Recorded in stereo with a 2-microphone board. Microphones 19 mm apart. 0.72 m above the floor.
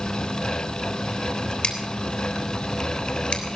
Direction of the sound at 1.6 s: 55° left (ahead or behind).